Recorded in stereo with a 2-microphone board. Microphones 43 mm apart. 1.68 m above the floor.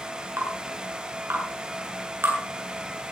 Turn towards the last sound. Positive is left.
turn(degrees=-70)  # may be behind; listen again after turning